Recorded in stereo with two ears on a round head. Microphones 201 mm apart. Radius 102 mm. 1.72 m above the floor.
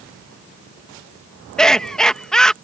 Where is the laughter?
5° left (ahead or behind).